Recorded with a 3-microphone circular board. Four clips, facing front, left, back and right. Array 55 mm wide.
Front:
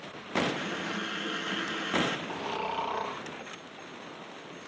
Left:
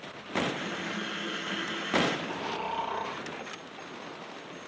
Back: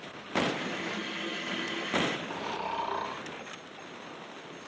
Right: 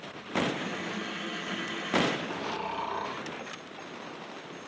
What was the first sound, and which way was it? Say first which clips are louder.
A running tap: even, front 1 dB; 30° left.